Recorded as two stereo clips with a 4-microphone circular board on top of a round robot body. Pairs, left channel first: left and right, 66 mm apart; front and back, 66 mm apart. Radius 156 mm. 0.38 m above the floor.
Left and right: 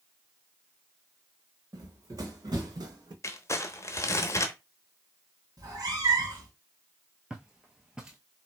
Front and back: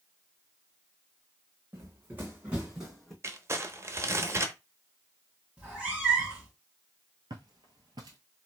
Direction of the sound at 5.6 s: 110° right.